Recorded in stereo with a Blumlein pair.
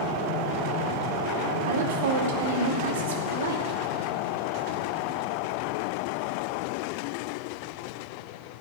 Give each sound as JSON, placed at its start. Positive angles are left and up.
{"t": 1.7, "sound": "a woman speaking", "azimuth_deg": -60, "distance_m": 2.0}